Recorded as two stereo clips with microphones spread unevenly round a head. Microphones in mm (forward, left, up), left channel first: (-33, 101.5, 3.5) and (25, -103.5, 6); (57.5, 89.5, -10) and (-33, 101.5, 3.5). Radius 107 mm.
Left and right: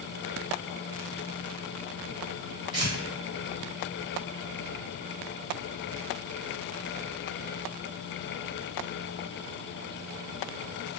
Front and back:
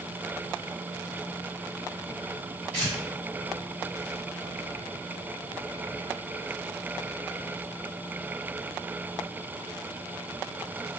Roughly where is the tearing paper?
Behind right.